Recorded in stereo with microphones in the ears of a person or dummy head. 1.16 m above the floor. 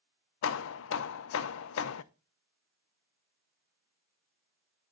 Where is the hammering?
65° left (ahead or behind), 0.6 m.